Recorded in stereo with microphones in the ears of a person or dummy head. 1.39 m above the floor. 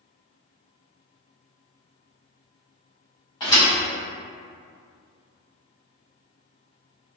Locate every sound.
3.4 s a thud: 20° left (ahead or behind), 0.7 m